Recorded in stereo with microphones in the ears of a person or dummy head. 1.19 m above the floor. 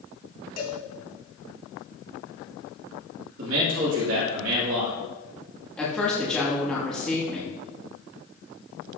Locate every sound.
0.6 s a cowbell: 50° left (ahead or behind), 2 m
3.4 s a man speaking: 75° right (ahead or behind), 2.5 m
5.8 s a woman speaking: 5° left (ahead or behind), 2 m